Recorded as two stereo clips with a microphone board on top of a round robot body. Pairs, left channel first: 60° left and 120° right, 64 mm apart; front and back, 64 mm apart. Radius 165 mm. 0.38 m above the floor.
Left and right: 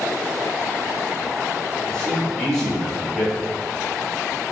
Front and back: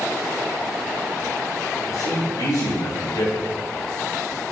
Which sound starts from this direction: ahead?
A man speaking, at 1.9 s.